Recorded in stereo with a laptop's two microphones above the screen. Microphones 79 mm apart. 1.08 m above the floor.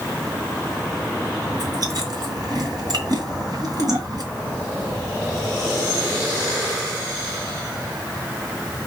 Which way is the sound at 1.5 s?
55° right (ahead or behind).